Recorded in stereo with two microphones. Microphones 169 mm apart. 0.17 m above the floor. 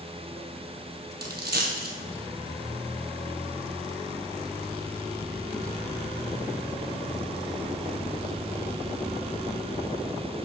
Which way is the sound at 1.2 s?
75° right (ahead or behind).